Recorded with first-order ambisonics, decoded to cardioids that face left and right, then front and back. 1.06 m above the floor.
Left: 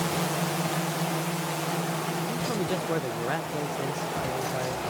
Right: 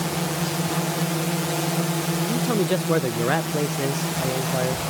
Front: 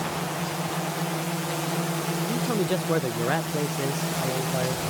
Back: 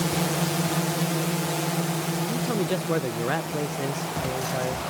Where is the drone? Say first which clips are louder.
Right 2 dB, back 3 dB; 155° right; by 4.9 s 60° right.